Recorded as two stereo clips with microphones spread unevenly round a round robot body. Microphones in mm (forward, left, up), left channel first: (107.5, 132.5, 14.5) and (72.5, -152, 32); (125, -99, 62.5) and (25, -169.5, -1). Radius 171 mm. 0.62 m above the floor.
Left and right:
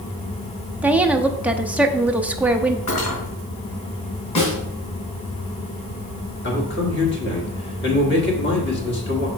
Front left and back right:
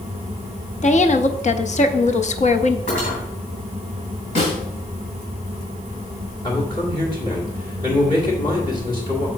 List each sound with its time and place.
0.8 s a woman speaking: 10° right, 0.7 m
2.9 s cutlery clinking: 55° left, 4 m
4.3 s a snare drum: 60° left, 3.5 m
6.4 s a man speaking: 115° left, 1.8 m